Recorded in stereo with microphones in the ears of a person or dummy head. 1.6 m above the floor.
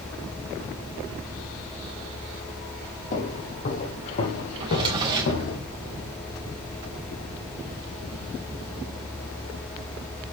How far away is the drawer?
About 3.5 m.